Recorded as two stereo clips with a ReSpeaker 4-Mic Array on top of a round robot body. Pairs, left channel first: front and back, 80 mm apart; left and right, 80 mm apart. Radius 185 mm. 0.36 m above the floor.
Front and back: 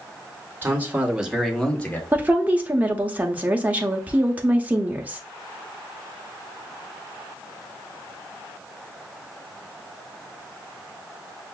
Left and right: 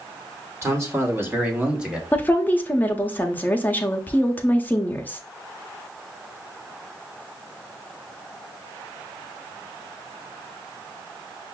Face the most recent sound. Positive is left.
turn(degrees=135)